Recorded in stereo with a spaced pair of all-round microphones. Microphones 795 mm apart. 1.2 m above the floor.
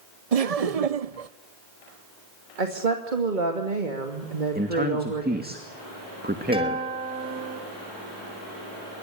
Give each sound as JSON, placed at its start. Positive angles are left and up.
{"t": 0.3, "sound": "laughter", "side_deg": -50, "distance_m": 0.9}
{"t": 2.6, "sound": "a woman speaking", "side_deg": -80, "distance_m": 2.5}
{"t": 4.5, "sound": "a man speaking", "side_deg": -10, "distance_m": 2.5}
{"t": 6.5, "sound": "a guitar", "side_deg": -5, "distance_m": 5.0}